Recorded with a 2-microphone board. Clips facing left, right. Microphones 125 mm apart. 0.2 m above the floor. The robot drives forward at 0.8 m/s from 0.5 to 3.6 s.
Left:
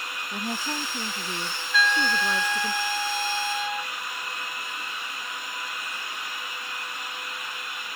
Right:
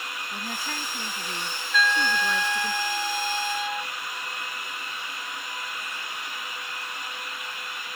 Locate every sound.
0.3 s a woman speaking: 25° left (ahead or behind); by 2.7 s 15° left (ahead or behind)
1.7 s a trumpet: centre (ahead or behind)